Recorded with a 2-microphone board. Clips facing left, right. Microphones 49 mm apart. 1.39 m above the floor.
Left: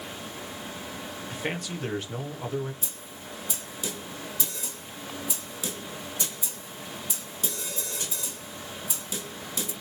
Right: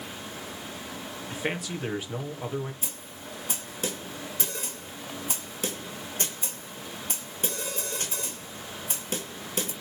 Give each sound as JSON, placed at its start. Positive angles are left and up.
{"t": 1.3, "sound": "a man speaking", "side_deg": -5, "distance_m": 2.0}
{"t": 2.8, "sound": "a snare drum", "side_deg": -50, "distance_m": 2.0}